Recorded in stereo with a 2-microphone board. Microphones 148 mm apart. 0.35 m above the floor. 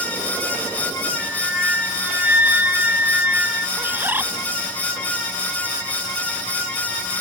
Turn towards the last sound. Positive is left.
turn(degrees=-15)  # may be behind; listen again after turning